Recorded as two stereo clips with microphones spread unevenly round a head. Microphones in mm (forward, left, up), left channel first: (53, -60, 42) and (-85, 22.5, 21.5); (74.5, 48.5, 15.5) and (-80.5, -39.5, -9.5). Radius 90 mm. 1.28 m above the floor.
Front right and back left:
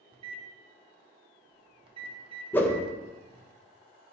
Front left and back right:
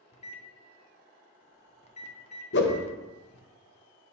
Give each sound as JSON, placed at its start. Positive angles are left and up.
{"t": 0.1, "sound": "a microwave", "azimuth_deg": 85, "distance_m": 0.6}
{"t": 2.5, "sound": "a whoosh", "azimuth_deg": 50, "distance_m": 0.7}